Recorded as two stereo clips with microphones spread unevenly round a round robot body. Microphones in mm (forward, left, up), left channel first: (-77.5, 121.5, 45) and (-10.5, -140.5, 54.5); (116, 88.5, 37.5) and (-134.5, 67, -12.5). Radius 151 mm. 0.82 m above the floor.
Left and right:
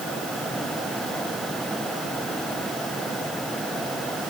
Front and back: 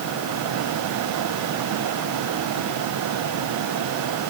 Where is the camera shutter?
No camera shutter in this recording.